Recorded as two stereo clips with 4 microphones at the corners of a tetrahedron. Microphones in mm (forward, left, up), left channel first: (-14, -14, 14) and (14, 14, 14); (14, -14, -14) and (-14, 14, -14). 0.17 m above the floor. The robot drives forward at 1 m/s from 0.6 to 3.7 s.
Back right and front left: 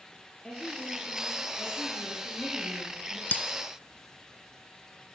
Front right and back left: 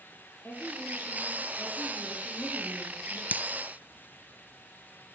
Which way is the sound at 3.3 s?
Straight behind.